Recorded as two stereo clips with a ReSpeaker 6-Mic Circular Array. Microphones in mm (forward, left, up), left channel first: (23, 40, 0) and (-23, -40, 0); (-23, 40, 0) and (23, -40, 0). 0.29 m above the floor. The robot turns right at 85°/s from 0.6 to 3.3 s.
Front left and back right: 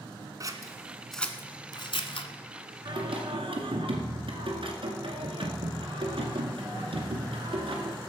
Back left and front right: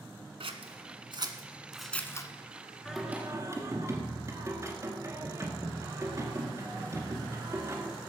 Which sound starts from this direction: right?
Scissors, at 0.4 s.